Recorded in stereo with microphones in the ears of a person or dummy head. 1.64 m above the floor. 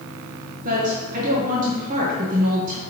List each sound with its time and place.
0.6 s a woman speaking: 50° right (ahead or behind), 1.1 m